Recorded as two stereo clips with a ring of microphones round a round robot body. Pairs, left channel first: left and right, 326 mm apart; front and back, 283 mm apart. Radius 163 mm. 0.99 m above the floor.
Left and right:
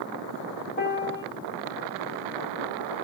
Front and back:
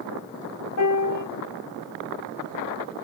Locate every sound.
0.8 s a piano: 30° left, 1.2 m